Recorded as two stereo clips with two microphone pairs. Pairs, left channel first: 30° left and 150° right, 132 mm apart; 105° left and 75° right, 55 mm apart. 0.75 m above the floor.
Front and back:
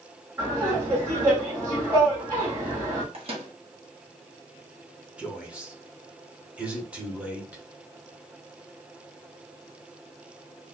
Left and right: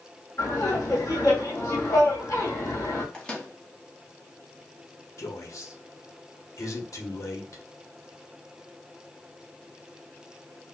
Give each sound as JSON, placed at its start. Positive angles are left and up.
{"t": 0.4, "sound": "laughter", "azimuth_deg": 140, "distance_m": 2.5}
{"t": 3.1, "sound": "a microwave", "azimuth_deg": 180, "distance_m": 1.2}
{"t": 5.2, "sound": "a man speaking", "azimuth_deg": 130, "distance_m": 1.3}